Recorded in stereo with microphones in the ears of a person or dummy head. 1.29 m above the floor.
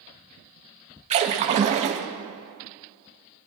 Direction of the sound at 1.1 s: 25° right (ahead or behind).